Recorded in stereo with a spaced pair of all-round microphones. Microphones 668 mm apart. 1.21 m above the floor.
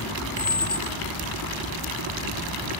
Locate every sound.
0.4 s a squeak: 80° left